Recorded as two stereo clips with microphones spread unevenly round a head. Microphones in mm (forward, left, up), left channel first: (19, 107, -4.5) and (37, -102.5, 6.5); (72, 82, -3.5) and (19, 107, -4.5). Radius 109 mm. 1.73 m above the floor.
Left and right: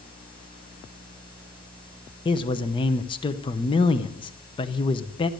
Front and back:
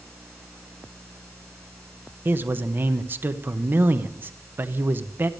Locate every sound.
2.2 s a man speaking: 150° left, 0.8 m